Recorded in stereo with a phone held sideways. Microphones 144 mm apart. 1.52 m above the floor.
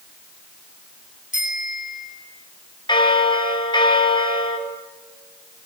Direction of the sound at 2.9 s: 35° left (ahead or behind).